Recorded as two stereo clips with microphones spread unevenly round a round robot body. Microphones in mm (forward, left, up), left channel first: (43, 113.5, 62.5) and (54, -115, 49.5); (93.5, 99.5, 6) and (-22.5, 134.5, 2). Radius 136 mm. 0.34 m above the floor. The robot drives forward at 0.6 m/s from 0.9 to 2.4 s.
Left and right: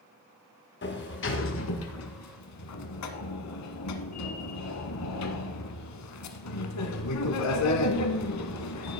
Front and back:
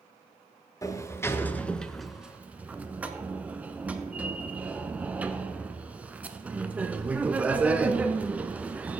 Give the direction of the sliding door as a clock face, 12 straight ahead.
10 o'clock.